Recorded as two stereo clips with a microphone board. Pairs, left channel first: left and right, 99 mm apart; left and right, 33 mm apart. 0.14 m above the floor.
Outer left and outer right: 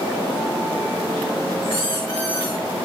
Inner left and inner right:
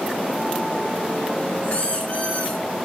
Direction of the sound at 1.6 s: 50° left (ahead or behind).